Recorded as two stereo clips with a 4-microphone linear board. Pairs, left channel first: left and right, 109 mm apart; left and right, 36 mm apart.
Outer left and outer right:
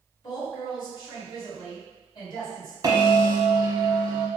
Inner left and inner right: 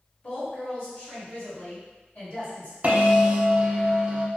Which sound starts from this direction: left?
A woman speaking, at 0.2 s.